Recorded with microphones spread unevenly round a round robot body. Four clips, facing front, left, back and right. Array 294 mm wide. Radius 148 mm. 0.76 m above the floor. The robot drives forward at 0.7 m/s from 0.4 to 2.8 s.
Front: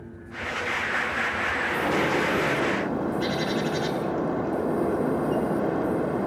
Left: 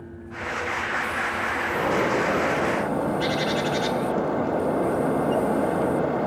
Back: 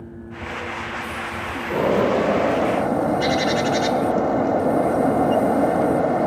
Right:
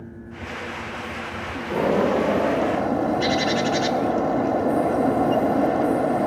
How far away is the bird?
About 1.3 m.